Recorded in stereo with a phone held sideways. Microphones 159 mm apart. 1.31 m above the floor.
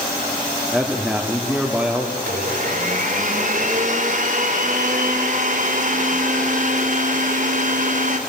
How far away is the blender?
About 2.5 m.